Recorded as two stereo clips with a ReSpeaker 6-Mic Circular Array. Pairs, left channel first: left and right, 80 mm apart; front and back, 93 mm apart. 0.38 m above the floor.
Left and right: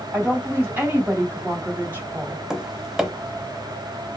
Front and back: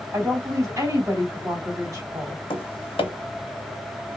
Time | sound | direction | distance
0.1 | a woman speaking | 140° right | 2.0 m
2.5 | tapping | 5° right | 0.6 m